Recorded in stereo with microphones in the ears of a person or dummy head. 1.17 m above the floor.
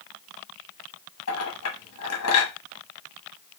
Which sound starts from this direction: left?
A clink, at 1.3 s.